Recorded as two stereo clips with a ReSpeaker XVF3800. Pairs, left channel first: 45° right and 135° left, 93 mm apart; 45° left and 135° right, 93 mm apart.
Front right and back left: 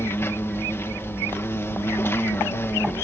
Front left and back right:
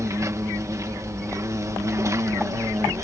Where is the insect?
95° right.